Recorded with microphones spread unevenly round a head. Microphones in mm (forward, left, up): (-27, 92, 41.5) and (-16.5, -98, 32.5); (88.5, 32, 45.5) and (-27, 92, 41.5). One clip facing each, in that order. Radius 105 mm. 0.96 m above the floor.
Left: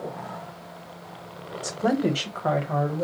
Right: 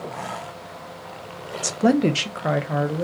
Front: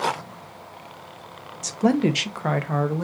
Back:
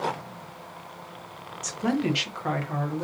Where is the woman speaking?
75° right, 0.5 m; by 3.0 s 10° right, 0.9 m.